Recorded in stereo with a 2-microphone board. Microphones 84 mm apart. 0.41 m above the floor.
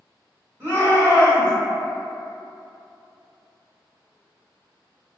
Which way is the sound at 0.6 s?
25° right (ahead or behind).